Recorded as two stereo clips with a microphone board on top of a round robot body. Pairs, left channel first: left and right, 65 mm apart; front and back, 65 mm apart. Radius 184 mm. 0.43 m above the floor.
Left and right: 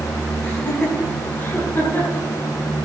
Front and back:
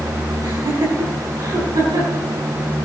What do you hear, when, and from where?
0.4 s laughter: 160° left, 6.5 m; by 2.3 s 145° left, 7 m